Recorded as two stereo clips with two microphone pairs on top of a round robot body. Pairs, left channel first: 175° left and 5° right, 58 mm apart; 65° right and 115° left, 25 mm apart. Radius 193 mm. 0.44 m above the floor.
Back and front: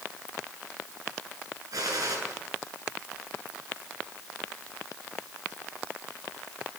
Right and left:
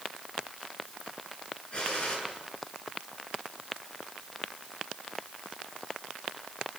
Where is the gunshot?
15° right, 9.5 m.